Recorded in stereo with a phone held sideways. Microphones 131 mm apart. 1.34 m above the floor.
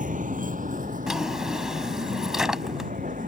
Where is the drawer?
5° right (ahead or behind).